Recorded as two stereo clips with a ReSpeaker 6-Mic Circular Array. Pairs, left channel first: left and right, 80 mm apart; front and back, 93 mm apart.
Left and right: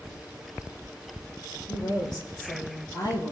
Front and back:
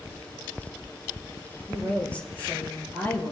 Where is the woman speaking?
75° left, 5.5 m; by 3.3 s 65° left, 6 m.